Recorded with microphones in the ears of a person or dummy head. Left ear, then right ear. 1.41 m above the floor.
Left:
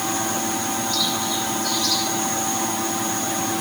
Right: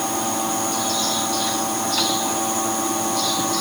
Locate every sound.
Only background noise.